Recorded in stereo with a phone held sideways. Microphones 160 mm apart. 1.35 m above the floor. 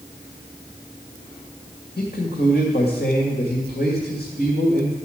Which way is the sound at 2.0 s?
85° left.